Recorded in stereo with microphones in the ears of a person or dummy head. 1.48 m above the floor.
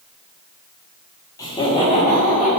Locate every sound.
1.4 s laughter: 15° left (ahead or behind), 1.3 m; by 2.5 s 35° left (ahead or behind), 3 m